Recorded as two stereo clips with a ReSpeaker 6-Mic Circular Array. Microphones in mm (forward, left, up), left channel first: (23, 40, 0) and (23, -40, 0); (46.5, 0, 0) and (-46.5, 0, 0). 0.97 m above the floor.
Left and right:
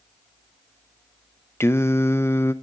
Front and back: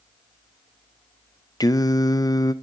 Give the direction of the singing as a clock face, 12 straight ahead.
11 o'clock.